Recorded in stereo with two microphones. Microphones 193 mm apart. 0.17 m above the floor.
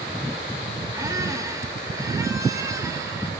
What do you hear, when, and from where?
0.9 s a squeak: 15° right (ahead or behind), 3 m